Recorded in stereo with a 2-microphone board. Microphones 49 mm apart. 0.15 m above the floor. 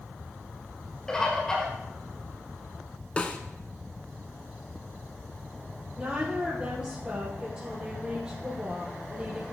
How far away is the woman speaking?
About 4 m.